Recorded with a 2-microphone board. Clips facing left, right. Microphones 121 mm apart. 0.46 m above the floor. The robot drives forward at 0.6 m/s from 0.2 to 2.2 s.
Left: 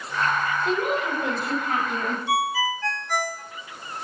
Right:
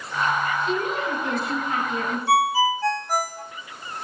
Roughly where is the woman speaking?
Left.